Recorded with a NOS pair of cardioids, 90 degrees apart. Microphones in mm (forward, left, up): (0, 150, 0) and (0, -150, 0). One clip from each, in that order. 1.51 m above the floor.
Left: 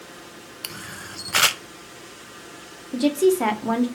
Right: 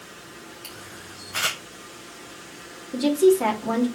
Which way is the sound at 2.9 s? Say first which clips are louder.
Right 1 dB; 20° left.